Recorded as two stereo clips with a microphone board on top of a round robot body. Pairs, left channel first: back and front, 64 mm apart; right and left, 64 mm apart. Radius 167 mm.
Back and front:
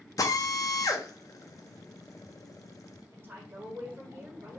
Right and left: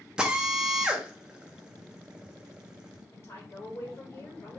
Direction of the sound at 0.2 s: 165° left.